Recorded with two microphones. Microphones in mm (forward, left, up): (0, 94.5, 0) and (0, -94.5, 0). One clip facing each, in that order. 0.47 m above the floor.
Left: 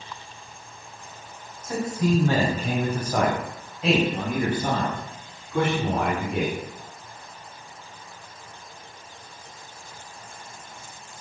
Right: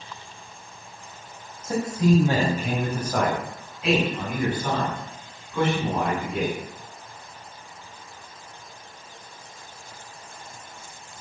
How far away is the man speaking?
About 3.5 m.